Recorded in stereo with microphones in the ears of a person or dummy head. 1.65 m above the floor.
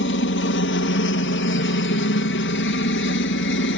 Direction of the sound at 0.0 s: 65° left (ahead or behind).